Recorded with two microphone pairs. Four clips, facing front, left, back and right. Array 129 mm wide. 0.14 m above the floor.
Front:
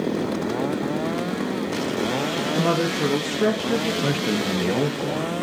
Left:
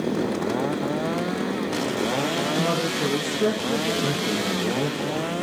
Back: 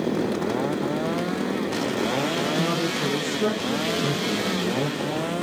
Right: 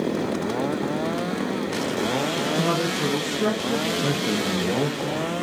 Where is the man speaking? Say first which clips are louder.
Right 1 dB, front 2 dB; 15° right, 2.5 m.